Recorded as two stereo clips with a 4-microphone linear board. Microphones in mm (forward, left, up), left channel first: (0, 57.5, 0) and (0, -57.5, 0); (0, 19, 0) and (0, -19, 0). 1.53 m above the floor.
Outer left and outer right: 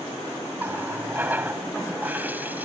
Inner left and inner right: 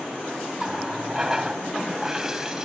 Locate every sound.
0.6 s a running tap: 15° right (ahead or behind)